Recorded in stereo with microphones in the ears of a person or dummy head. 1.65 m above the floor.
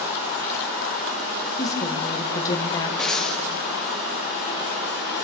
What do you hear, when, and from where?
1.6 s a woman speaking: 20° left (ahead or behind), 1.7 m
3.0 s breathing: 5° left (ahead or behind), 0.8 m